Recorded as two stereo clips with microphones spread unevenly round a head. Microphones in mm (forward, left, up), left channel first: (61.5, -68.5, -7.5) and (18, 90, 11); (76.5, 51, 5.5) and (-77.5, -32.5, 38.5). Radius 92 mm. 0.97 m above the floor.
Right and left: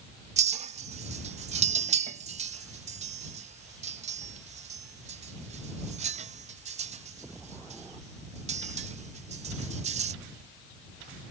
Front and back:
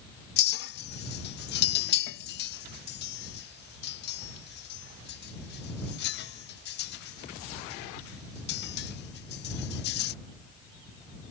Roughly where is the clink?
Ahead left.